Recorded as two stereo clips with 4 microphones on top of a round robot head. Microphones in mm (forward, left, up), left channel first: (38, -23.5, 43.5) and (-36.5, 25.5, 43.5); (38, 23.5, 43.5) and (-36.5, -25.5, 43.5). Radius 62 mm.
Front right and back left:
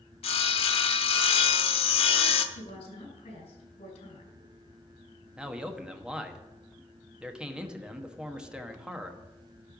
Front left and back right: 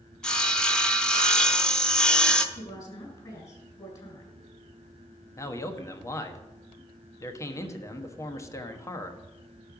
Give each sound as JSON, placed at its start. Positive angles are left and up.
{"t": 0.2, "sound": "sawing", "azimuth_deg": -50, "distance_m": 0.9}
{"t": 2.5, "sound": "a woman speaking", "azimuth_deg": -20, "distance_m": 4.5}
{"t": 5.4, "sound": "a man speaking", "azimuth_deg": 70, "distance_m": 1.2}